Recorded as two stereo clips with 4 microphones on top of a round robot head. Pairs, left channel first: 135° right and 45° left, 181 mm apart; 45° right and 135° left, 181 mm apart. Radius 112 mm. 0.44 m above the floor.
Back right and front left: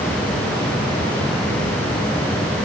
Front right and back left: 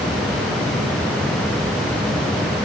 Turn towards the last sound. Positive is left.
No sound to turn to.